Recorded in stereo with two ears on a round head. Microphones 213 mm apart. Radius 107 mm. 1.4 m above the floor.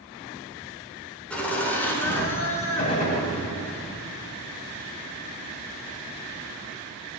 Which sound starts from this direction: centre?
Laughter, at 1.3 s.